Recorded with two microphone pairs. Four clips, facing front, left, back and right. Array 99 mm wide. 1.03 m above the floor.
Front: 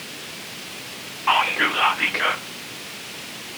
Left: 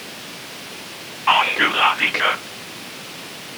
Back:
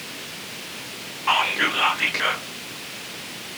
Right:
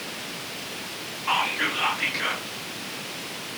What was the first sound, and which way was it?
Whispering, 75° left.